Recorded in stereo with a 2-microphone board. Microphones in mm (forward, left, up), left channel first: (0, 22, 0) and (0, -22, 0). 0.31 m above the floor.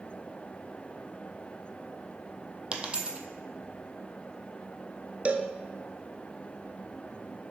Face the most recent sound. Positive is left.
turn(degrees=-30)  # may be behind; listen again after turning